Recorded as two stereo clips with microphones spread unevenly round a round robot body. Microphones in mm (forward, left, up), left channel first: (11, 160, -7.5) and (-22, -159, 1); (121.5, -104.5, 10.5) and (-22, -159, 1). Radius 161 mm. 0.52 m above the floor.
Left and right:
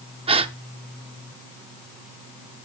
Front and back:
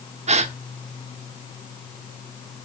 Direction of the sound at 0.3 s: 165° right.